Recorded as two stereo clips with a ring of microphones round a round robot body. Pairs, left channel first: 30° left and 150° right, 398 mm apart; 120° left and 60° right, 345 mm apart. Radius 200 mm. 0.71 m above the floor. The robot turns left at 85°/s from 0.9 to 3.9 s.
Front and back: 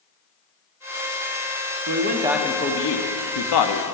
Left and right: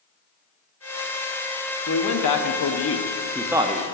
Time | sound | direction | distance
1.9 | a man speaking | 165° left | 0.9 m